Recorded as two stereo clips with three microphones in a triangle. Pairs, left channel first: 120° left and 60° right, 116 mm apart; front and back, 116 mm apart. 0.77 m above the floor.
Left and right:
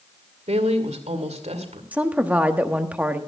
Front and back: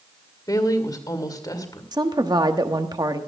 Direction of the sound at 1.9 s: 135° right.